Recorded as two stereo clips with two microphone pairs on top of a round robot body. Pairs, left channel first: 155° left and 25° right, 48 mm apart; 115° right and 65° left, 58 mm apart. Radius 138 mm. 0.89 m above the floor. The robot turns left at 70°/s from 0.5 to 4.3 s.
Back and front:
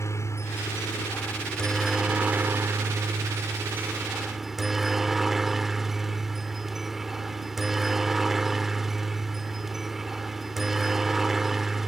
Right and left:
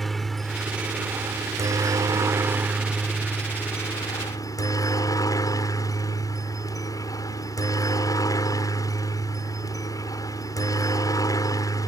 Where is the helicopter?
155° left; by 11.9 s 110° right.